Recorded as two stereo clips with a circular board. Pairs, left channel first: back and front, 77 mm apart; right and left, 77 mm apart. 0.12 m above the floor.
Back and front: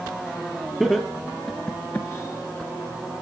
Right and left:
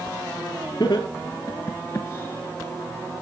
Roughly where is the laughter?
Right.